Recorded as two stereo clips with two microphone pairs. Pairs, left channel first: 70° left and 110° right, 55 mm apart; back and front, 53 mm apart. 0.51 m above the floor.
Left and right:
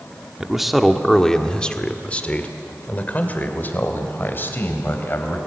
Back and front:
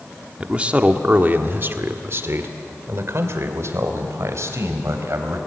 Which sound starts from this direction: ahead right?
A man speaking, at 0.4 s.